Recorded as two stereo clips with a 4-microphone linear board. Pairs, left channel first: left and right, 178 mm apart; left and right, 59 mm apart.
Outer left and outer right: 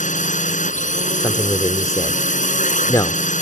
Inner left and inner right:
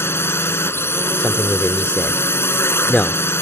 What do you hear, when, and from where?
0.0 s a drone: 45° left (ahead or behind)
1.2 s a man speaking: 20° left (ahead or behind)